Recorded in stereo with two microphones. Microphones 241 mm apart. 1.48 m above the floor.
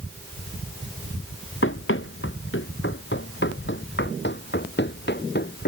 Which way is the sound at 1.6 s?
55° left (ahead or behind).